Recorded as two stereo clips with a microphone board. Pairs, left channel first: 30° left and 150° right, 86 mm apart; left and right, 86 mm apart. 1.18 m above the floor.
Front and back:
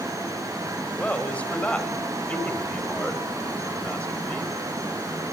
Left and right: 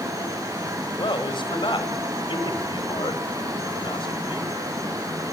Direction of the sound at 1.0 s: 105° left.